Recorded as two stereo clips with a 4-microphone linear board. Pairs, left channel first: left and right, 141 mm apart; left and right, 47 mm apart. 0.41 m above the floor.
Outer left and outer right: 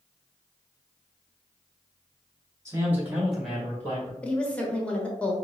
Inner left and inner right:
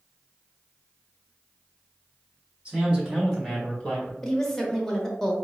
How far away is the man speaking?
About 1.9 m.